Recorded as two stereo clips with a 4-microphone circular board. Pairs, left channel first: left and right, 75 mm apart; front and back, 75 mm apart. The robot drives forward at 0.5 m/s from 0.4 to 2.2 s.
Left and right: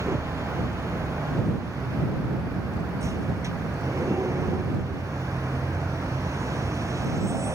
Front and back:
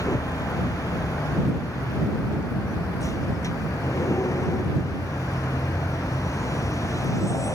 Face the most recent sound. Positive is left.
turn(degrees=-45)